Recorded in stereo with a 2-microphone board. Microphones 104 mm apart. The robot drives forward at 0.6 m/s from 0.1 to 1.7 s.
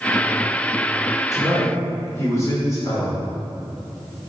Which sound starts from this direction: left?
A man speaking, at 1.3 s.